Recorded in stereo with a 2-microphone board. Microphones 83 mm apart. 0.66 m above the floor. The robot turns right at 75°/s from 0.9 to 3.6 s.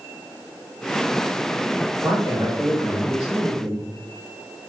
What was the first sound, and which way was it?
A man speaking, 110° right.